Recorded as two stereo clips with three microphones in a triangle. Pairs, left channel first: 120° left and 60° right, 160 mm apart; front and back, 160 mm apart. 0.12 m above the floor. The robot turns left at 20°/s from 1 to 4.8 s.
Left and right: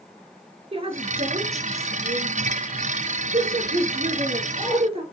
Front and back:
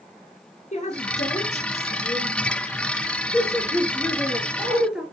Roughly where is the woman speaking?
Ahead.